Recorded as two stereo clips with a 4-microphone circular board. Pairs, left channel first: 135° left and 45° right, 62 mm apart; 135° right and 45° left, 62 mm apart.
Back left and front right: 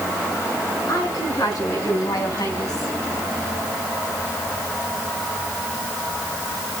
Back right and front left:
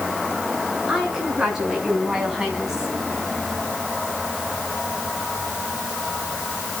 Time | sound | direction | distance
0.9 | a woman speaking | 120° left | 8.5 m